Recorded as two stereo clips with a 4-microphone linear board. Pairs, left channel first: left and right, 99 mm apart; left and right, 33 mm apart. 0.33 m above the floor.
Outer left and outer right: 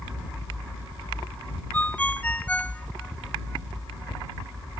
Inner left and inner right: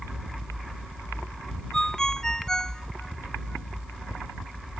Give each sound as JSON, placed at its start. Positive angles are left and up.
{"t": 1.7, "sound": "a ringtone", "side_deg": 15}